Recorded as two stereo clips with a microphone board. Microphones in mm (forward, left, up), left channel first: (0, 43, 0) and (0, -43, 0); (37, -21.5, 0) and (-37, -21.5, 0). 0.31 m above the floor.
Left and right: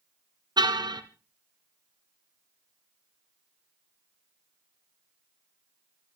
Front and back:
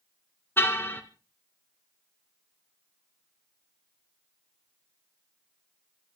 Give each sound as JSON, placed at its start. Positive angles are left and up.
{"t": 0.6, "sound": "a car horn", "azimuth_deg": -60, "distance_m": 2.0}